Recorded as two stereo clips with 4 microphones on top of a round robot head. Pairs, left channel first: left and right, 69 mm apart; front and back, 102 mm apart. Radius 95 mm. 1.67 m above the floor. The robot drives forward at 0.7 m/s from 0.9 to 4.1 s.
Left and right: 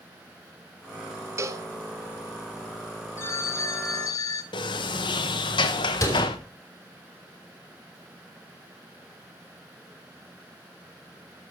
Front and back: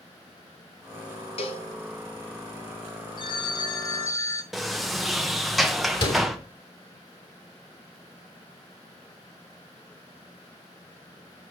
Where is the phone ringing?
40° left, 1.8 m; by 4.4 s 60° left, 1.4 m.